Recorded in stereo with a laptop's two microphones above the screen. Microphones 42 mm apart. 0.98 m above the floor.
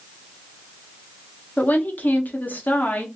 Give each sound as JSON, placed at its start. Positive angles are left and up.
{"t": 1.6, "sound": "a woman speaking", "side_deg": 40, "distance_m": 0.9}